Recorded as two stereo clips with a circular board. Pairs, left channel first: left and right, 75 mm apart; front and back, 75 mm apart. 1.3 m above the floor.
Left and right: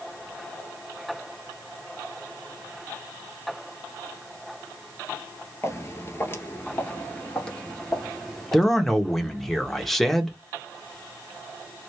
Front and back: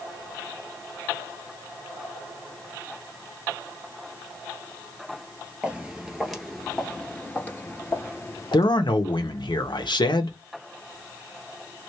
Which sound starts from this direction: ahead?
A man speaking, at 8.5 s.